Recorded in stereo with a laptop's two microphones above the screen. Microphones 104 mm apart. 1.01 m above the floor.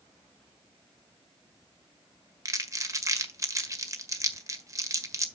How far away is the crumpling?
About 1.5 m.